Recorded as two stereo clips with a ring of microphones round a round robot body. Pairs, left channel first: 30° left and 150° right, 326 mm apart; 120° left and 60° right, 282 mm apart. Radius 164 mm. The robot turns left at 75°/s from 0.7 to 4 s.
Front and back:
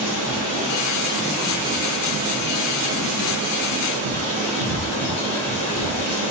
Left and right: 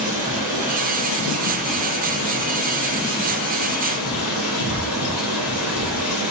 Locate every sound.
0.0 s running water: straight ahead, 3.5 m; by 6.3 s 115° left, 3.5 m